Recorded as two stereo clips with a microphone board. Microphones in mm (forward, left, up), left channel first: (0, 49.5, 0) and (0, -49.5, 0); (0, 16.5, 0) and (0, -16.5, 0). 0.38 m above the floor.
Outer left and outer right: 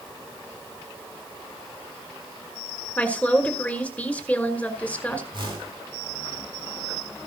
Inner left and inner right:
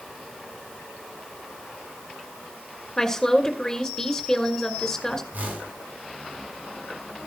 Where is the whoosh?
55° right (ahead or behind), 4.5 m.